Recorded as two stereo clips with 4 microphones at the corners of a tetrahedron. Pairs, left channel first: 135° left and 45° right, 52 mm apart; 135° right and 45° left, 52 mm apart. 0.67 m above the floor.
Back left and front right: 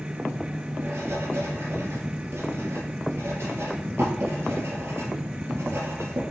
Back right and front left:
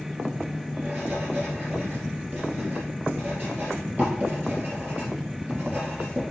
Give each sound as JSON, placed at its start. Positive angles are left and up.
{"t": 0.8, "sound": "writing", "azimuth_deg": -10, "distance_m": 3.0}